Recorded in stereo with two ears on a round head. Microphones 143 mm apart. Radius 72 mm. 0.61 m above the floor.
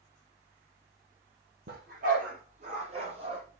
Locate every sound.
1.7 s a dog barking: 65° right (ahead or behind), 5.5 m; by 3.4 s 30° right (ahead or behind), 5 m